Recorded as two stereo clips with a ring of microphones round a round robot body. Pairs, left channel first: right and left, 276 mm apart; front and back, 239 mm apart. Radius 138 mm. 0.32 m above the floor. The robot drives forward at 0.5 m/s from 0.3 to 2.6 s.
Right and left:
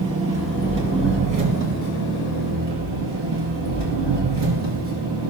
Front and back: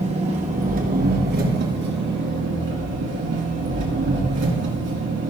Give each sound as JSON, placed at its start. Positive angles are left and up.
{"t": 0.0, "sound": "an engine running", "azimuth_deg": 120, "distance_m": 1.8}